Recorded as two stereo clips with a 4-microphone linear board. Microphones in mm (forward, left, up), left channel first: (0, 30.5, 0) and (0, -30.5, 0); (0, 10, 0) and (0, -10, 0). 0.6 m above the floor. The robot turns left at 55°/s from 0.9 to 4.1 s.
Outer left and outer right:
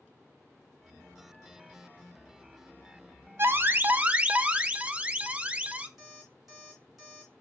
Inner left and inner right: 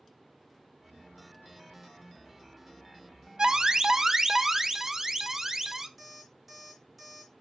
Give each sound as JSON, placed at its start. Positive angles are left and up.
{"t": 3.4, "sound": "an alarm", "azimuth_deg": -105, "distance_m": 0.6}
{"t": 6.0, "sound": "an alarm clock", "side_deg": -5, "distance_m": 3.0}